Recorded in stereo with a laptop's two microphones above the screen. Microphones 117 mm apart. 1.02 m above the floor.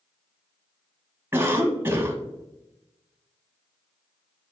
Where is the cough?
20° right (ahead or behind), 0.9 m.